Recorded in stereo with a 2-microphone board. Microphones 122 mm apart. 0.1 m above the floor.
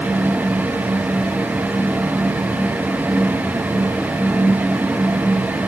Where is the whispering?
I don't hear whispering.